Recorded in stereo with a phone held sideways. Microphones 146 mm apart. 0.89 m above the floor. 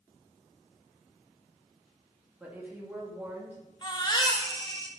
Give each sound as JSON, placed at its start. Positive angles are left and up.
{"t": 2.4, "sound": "a woman speaking", "side_deg": -10, "distance_m": 1.5}
{"t": 3.8, "sound": "a baby crying", "side_deg": 30, "distance_m": 0.9}